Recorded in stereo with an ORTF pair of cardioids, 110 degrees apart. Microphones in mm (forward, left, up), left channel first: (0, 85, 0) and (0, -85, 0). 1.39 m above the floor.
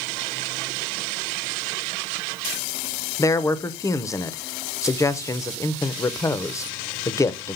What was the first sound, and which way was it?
A man speaking, 20° left.